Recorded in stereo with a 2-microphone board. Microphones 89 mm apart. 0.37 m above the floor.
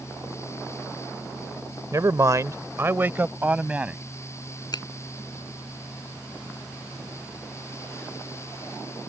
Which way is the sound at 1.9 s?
40° right (ahead or behind).